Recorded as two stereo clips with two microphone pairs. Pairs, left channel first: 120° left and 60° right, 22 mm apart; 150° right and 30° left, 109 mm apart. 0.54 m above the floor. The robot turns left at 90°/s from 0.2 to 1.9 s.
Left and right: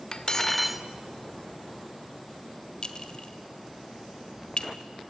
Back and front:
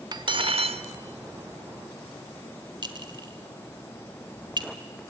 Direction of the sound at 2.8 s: 70° left.